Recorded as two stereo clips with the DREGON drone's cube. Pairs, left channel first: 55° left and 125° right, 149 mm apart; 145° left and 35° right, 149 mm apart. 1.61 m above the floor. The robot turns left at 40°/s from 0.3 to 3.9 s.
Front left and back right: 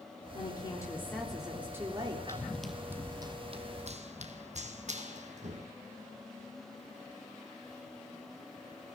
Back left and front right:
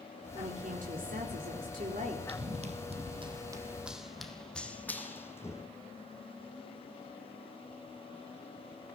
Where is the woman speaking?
5° left, 4 m; by 2.2 s 70° right, 4 m.